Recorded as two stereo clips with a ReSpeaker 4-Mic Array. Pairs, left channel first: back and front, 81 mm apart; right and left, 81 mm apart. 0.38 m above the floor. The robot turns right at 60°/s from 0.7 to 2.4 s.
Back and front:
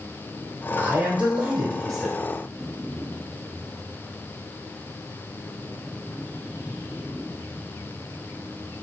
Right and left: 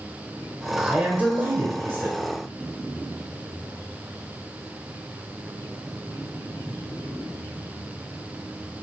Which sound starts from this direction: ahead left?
A man speaking, at 0.8 s.